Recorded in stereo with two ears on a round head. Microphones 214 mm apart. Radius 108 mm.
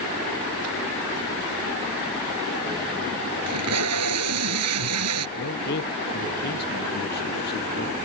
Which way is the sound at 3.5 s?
70° right (ahead or behind).